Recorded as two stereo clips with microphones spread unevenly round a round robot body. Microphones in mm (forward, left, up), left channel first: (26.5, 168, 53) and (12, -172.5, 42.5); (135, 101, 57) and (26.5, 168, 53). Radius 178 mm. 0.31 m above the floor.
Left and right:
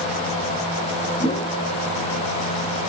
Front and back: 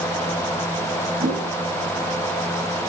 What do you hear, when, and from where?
1.2 s a whoosh: 165° left, 2.5 m